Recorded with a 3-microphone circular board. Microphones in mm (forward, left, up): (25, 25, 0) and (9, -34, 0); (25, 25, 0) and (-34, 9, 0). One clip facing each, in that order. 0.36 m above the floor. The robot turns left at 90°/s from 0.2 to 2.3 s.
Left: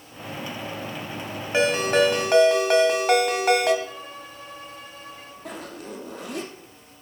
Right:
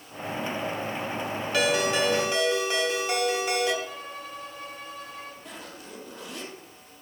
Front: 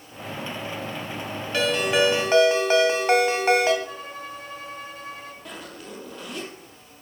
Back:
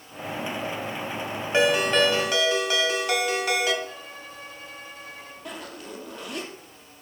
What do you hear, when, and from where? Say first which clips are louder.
1.5 s a ringtone: left 4 dB, back 1 dB; 135° left, 1.7 m; by 3.7 s 65° left, 1.7 m
3.8 s a violin: even, front 4 dB; 25° right, 4.5 m
5.5 s a zipper: left 6 dB, back 1 dB; 110° left, 3 m